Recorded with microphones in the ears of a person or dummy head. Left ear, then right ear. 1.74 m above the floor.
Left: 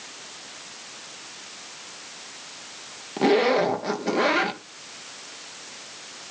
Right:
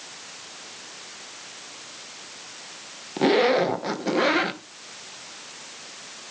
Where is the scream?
No scream in this recording.